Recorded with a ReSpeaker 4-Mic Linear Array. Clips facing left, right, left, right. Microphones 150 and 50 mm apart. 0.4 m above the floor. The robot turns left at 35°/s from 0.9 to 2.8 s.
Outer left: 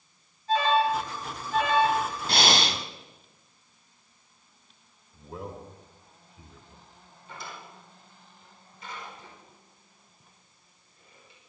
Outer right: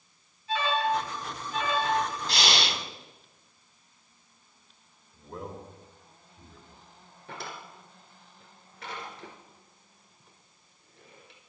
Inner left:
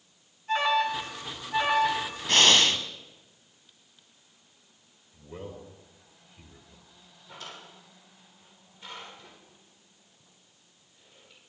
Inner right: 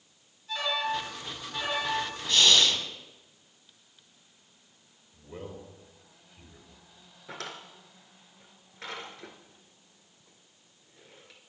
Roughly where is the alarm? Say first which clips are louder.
Outer left 4 dB, inner left 5 dB; behind left.